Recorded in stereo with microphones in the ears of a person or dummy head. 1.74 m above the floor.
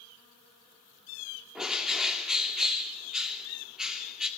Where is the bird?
Centre (ahead or behind), 2.5 m.